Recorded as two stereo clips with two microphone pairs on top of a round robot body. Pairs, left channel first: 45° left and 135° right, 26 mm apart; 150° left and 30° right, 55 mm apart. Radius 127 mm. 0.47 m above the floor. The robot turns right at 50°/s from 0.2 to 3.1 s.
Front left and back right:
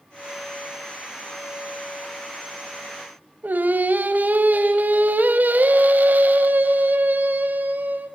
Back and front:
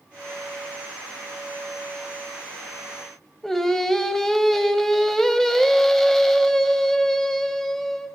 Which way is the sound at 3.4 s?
125° right.